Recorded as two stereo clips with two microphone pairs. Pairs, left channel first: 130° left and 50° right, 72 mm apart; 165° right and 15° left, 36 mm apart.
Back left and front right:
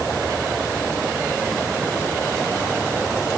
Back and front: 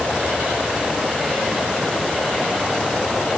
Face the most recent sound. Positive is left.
No sound to turn to.